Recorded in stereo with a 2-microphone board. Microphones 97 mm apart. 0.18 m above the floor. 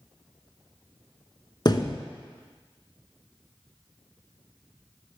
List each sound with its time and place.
1.6 s a thud: 45° left (ahead or behind), 0.9 m